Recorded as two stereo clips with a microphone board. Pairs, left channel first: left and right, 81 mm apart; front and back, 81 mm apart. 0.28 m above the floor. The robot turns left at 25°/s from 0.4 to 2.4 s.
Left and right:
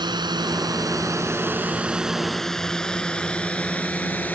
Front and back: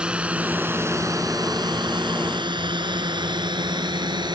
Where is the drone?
105° right; by 4.3 s 160° left.